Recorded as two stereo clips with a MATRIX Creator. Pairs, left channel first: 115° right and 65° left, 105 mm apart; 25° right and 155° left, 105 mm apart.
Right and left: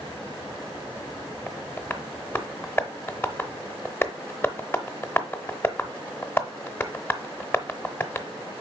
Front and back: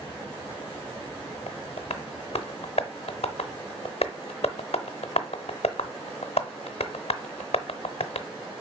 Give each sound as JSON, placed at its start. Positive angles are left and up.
{"t": 1.5, "sound": "tapping", "azimuth_deg": -45, "distance_m": 0.7}